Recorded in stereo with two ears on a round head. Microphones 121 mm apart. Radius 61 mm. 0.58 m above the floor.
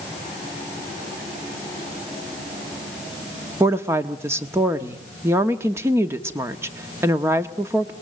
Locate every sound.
3.6 s a woman speaking: 20° right (ahead or behind), 1.2 m